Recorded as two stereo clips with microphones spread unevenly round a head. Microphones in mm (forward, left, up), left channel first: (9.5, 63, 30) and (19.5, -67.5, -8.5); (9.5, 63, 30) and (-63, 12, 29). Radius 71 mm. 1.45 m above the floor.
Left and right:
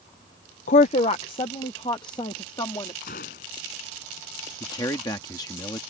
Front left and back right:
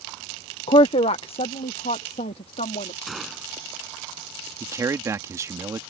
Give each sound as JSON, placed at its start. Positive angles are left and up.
{"t": 0.7, "sound": "a woman speaking", "azimuth_deg": 65}
{"t": 3.1, "sound": "a gunshot", "azimuth_deg": 125}
{"t": 4.6, "sound": "a man speaking", "azimuth_deg": 160}